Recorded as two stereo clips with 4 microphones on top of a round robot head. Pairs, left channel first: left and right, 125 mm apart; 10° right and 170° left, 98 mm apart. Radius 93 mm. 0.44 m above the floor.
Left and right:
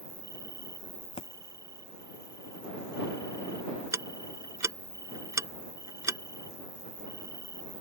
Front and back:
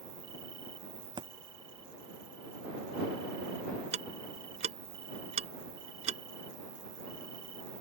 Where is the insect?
150° right.